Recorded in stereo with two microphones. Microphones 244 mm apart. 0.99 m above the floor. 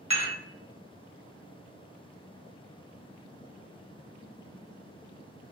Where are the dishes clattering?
25° right (ahead or behind), 1.3 m.